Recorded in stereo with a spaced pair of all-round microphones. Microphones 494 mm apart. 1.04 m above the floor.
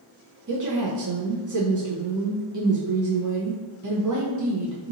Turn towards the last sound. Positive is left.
turn(degrees=-40)  # may be behind; listen again after turning